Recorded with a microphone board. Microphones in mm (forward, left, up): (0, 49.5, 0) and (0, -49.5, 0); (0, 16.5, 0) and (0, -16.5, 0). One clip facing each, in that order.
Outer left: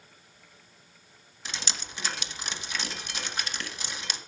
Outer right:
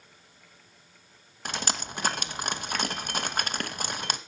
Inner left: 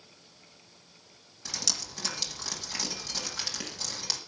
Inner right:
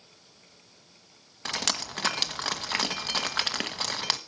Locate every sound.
1.4 s dripping: 55° right (ahead or behind), 1.1 m